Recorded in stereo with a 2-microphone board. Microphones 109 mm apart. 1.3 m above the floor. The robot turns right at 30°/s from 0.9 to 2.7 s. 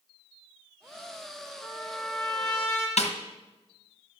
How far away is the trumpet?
About 4.5 m.